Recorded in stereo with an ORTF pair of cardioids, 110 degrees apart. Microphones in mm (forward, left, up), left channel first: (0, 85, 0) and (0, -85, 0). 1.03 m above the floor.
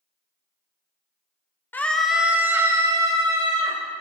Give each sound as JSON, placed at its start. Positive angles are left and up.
{"t": 1.7, "sound": "a scream", "azimuth_deg": 10, "distance_m": 0.8}